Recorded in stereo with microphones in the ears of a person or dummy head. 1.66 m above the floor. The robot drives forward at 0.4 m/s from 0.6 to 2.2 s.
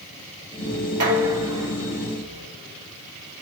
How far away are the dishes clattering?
About 0.7 m.